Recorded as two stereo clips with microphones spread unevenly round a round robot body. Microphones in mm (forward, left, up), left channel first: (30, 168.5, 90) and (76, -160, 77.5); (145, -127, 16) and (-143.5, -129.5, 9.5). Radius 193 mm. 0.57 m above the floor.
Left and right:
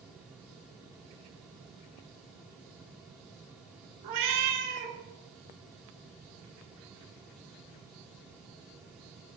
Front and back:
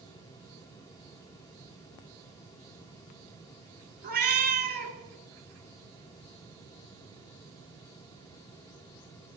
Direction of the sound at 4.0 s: 120° right.